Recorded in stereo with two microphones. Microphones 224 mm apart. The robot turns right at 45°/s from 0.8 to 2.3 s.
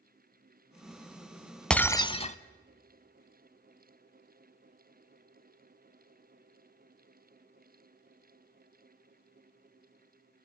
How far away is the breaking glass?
About 0.7 m.